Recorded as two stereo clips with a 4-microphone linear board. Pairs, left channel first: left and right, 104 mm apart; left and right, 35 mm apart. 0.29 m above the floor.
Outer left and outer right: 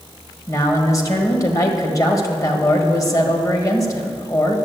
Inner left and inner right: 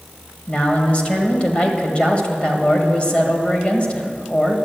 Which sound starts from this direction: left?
A man speaking, at 0.5 s.